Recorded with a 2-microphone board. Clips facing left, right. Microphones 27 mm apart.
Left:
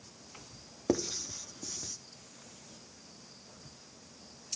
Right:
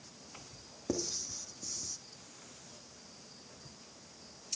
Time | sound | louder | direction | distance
0.9 | writing | left 5 dB | 30° left (ahead or behind) | 1.0 m